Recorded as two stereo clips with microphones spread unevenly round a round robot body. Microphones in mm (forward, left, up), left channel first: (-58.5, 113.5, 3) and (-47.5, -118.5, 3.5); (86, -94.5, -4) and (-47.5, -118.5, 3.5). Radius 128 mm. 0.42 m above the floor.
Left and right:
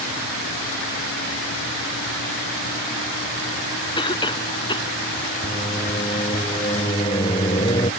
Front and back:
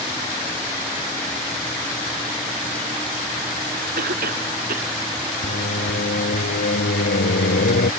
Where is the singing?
20° left.